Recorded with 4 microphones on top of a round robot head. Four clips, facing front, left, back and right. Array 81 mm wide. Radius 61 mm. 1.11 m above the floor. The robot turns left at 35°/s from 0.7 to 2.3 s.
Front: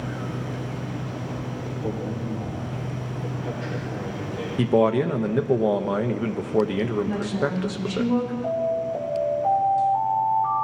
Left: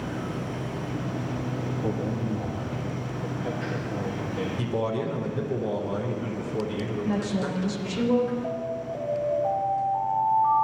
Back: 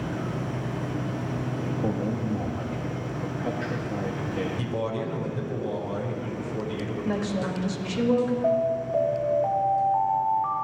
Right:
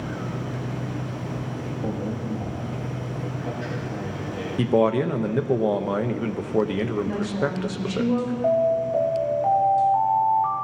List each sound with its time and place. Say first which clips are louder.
1.8 s a man speaking: right 1 dB, back 1 dB; 160° right, 2.5 m; by 4.5 s straight behind, 2.5 m
4.6 s a man speaking: right 11 dB, front 9 dB; 40° right, 1.0 m
7.0 s a woman speaking: right 2 dB, front 2 dB; 175° left, 4 m
8.4 s an alarm: right 10 dB, even; 125° right, 1.9 m